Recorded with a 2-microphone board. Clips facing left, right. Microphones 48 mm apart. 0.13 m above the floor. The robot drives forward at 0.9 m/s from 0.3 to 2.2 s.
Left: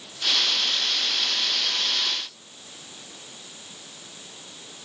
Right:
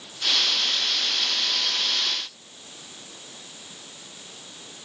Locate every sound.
Only background noise.